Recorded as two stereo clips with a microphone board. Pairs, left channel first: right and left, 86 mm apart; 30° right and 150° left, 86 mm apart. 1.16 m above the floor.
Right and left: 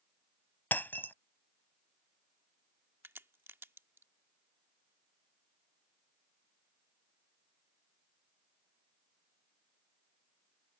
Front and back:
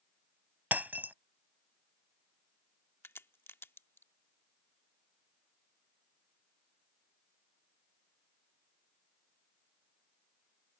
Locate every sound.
0.7 s breaking glass: 150° right
3.0 s a crack: 30° left